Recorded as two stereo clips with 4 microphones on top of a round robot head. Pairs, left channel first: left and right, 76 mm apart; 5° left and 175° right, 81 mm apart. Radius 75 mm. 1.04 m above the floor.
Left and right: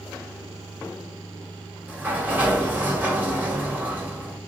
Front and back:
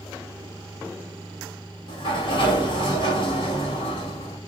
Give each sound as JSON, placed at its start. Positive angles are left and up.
{"t": 1.9, "sound": "a sliding door", "azimuth_deg": -20, "distance_m": 1.4}